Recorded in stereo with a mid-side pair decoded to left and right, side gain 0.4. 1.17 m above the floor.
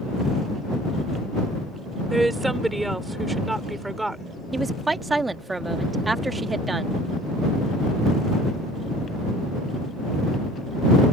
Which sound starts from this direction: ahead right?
A woman speaking, at 4.5 s.